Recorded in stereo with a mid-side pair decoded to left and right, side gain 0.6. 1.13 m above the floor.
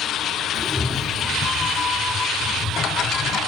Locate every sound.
0.5 s a cat meowing: 5° left, 1.4 m; by 3.4 s 40° left, 3 m